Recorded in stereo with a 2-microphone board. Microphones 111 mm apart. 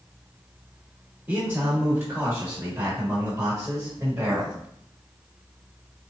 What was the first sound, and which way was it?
A man speaking, 25° right (ahead or behind).